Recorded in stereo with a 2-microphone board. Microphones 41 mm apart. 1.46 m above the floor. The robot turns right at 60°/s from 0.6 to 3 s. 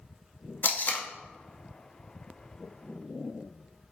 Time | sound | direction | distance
0.6 | tape being pulled | 55° left (ahead or behind) | 0.6 m